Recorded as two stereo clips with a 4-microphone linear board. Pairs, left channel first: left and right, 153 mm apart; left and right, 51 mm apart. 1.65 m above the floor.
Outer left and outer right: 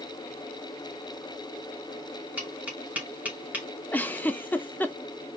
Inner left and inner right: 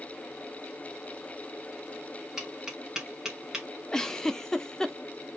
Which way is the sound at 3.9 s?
10° left (ahead or behind).